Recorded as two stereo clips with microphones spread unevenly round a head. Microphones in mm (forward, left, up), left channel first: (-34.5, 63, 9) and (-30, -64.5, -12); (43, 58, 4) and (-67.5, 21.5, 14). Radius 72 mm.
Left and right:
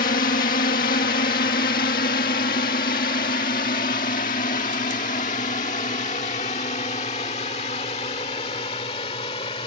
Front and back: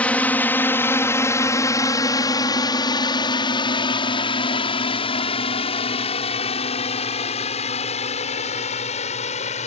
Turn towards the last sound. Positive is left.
turn(degrees=35)